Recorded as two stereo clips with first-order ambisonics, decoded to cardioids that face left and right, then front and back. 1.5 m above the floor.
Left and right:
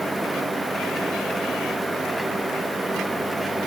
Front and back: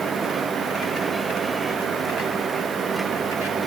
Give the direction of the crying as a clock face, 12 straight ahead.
I don't hear crying.